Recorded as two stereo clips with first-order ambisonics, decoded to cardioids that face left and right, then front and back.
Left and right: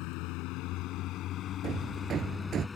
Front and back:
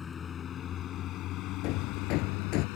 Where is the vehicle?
70° left; by 2.8 s 15° left.